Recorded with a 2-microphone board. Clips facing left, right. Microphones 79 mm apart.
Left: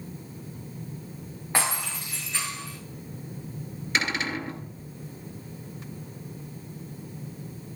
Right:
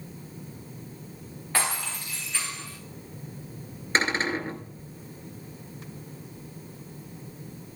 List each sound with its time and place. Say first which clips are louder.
1.5 s breaking glass: left 1 dB; 20° left (ahead or behind), 8.5 m
4.0 s a cupboard door: right 3 dB; 35° right (ahead or behind), 2 m